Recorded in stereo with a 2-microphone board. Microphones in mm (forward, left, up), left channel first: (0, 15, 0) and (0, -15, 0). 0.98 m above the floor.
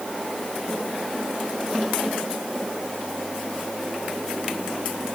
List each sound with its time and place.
Only background noise.